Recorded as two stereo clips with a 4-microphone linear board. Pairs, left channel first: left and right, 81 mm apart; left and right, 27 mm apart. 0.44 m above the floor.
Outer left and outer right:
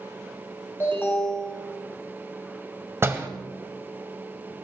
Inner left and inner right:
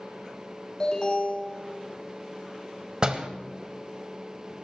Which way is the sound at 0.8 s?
30° left (ahead or behind).